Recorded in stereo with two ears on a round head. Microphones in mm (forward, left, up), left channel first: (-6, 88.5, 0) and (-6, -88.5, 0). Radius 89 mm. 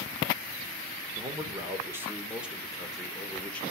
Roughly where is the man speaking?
Right.